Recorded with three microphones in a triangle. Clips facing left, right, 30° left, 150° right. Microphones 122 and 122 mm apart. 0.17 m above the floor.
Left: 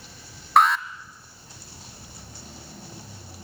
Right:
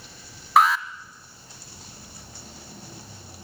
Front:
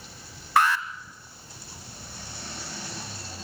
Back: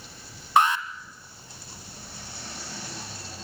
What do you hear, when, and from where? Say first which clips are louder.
0.6 s an alarm: even, back 1 dB; 175° right, 1.2 m